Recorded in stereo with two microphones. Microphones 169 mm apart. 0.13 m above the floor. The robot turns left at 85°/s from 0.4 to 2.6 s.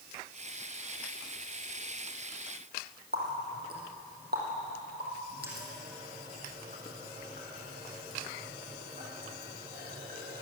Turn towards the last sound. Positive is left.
turn(degrees=-70)  # may be behind; listen again after turning